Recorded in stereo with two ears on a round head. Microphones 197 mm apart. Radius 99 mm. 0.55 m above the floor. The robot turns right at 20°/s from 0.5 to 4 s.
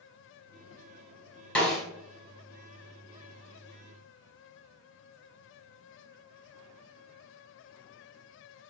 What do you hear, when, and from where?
1.6 s a snare drum: 5° left (ahead or behind), 3 m; by 1.8 s centre (ahead or behind), 3 m